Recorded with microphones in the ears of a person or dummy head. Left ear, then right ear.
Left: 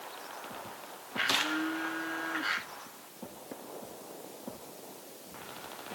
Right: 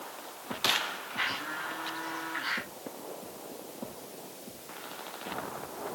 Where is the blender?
35° left (ahead or behind), 5.5 m.